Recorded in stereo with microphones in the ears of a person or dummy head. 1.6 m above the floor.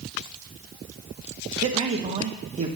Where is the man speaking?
35° right (ahead or behind), 0.9 m.